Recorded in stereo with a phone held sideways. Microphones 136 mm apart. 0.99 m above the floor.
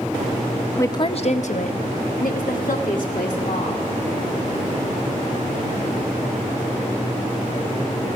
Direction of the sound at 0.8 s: 20° left (ahead or behind).